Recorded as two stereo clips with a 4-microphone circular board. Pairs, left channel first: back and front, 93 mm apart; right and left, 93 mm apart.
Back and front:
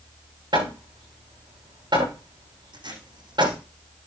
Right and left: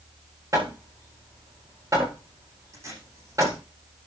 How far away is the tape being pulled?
About 9 m.